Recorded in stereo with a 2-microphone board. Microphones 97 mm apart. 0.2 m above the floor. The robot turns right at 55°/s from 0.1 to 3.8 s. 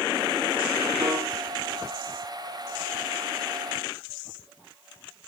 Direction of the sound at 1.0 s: 20° right (ahead or behind).